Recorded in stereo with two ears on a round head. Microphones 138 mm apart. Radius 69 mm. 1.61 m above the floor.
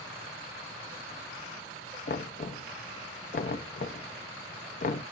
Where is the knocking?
55° left (ahead or behind), 0.7 m.